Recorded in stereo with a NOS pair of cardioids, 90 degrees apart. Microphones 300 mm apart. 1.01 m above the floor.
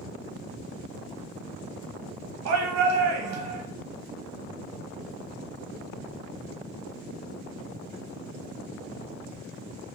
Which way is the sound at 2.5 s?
70° right.